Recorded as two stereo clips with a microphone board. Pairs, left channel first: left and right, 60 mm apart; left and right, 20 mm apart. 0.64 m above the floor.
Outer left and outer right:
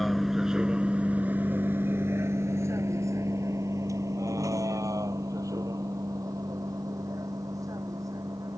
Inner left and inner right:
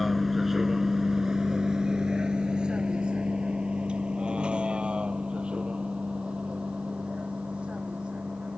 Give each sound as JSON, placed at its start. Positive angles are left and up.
{"t": 0.0, "sound": "a vehicle", "side_deg": 0}